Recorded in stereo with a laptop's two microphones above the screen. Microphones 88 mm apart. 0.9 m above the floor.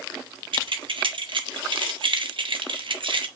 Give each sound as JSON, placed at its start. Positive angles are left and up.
{"t": 0.5, "sound": "keys jangling", "side_deg": -70, "distance_m": 0.9}